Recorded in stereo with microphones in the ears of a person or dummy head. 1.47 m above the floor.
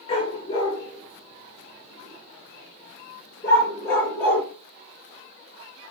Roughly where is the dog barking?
Left.